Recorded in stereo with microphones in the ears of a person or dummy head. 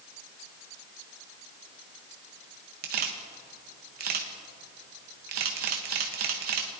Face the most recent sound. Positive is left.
turn(degrees=-55)  # may be behind; listen again after turning